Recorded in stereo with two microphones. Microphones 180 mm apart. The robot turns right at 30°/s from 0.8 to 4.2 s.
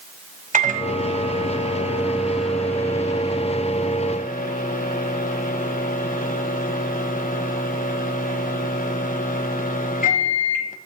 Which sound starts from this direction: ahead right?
A microwave, at 0.5 s.